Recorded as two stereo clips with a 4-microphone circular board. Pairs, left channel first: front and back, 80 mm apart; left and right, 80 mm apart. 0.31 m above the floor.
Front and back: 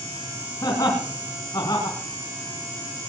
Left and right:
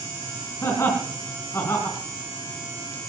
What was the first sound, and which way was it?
Laughter, 40° left.